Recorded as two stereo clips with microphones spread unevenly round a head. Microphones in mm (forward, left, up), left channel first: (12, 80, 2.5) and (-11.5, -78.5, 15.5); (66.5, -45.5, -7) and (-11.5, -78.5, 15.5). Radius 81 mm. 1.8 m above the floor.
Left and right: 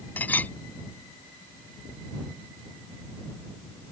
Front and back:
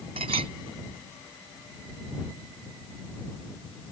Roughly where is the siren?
I don't hear a siren.